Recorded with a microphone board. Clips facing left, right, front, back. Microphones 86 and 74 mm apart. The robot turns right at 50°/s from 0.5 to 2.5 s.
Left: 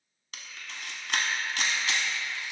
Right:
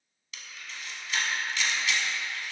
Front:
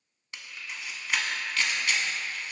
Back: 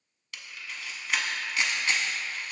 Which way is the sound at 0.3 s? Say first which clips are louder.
Even, front 1 dB; 60° left.